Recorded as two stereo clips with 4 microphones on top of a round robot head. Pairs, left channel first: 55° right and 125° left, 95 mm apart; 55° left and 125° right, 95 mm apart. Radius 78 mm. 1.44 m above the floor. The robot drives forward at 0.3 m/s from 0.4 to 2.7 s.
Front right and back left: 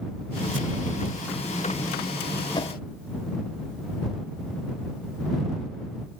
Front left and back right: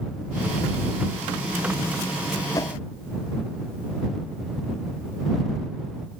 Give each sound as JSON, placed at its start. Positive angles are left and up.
{"t": 2.5, "sound": "a whoosh", "azimuth_deg": -5}